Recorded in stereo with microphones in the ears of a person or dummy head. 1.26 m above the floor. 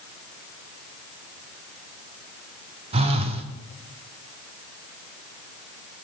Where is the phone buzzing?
25° right (ahead or behind), 0.5 m.